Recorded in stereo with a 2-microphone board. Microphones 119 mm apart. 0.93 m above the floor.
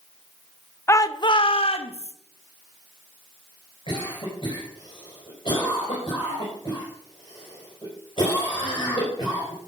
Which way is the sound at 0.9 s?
20° left (ahead or behind).